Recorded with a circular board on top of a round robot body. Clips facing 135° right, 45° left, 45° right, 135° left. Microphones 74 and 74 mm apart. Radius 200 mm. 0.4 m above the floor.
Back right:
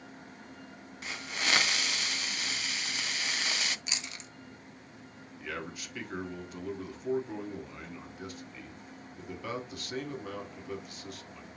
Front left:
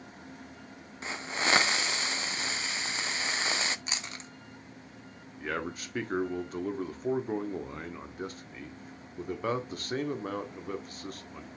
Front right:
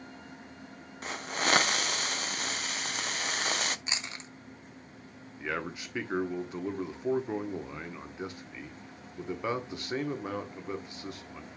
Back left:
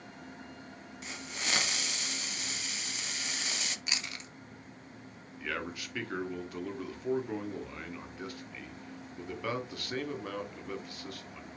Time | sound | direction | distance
1.0 | a hiss | 10° right | 0.6 m
3.9 | chewing | 10° left | 1.6 m
5.4 | a man speaking | 15° left | 1.8 m